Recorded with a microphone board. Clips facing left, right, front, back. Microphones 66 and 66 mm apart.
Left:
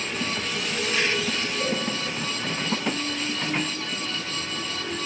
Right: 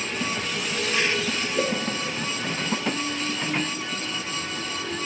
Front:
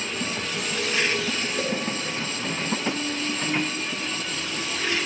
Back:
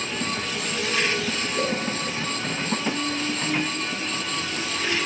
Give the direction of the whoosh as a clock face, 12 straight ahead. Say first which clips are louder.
Right 4 dB, back 3 dB; 3 o'clock.